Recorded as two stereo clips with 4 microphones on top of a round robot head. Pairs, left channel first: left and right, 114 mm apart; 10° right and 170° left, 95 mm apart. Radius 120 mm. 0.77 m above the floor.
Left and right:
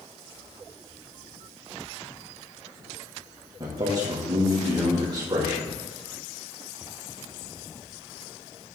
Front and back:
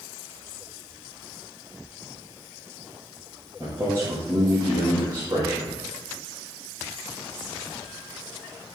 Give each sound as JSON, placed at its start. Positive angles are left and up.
{"t": 3.6, "sound": "a man speaking", "azimuth_deg": -130, "distance_m": 1.4}